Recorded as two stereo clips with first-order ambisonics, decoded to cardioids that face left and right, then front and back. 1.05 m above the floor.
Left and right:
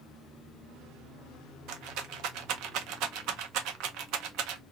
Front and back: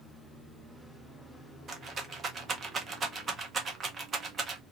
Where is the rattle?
115° right, 0.5 m.